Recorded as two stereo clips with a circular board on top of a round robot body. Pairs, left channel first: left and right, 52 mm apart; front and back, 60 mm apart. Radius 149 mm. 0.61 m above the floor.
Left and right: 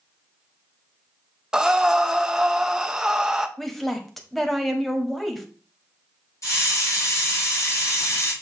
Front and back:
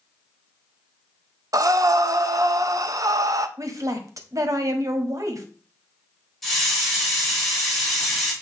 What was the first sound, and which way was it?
Breathing, 170° right.